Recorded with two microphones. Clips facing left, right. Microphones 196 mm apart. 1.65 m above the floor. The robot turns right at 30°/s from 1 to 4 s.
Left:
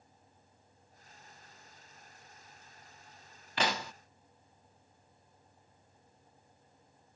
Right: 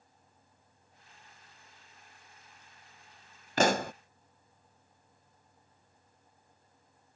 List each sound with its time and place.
3.6 s a pop: 45° right (ahead or behind); by 3.9 s 55° right (ahead or behind)